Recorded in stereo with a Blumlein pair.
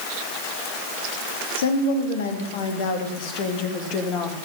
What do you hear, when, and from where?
1.6 s a woman speaking: 60° left, 3.5 m; by 4.3 s 30° left, 2.5 m